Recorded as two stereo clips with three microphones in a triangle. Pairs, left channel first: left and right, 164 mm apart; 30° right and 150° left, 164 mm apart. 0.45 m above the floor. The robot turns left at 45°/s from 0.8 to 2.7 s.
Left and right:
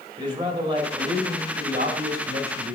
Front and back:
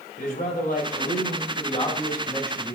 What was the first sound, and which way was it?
A man speaking, 35° right.